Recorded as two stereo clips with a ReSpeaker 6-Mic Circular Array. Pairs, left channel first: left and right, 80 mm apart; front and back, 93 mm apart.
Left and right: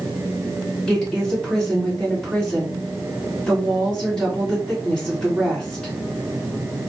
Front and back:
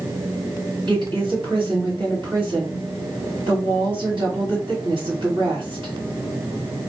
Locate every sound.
0.9 s a woman speaking: 160° left, 2 m